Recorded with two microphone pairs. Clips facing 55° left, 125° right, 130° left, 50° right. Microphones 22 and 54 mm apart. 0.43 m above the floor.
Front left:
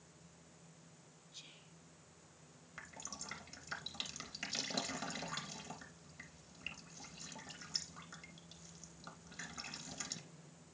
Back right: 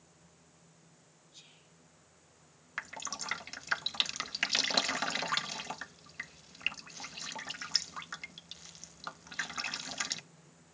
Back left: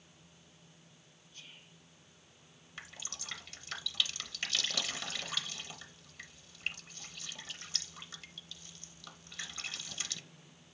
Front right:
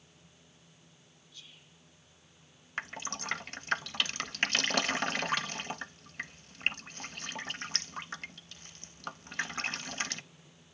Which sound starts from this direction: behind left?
Whispering, at 1.3 s.